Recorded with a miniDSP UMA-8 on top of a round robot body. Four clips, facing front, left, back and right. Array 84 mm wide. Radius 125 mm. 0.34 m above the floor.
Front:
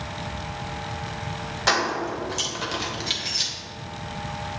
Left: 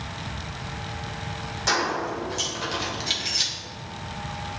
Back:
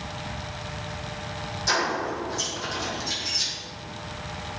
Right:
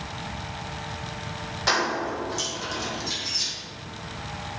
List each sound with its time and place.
1.7 s keys jangling: 15° right, 1.9 m; by 3.5 s 60° left, 1.5 m